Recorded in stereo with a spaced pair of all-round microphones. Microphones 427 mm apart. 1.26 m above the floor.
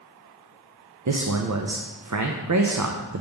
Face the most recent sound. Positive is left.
turn(degrees=-45)  # may be behind; listen again after turning